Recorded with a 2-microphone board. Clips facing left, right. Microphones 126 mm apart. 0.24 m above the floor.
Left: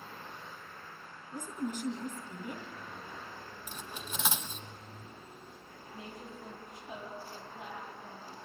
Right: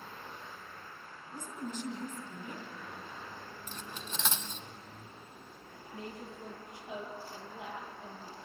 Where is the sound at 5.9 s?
75° right (ahead or behind), 6.5 m.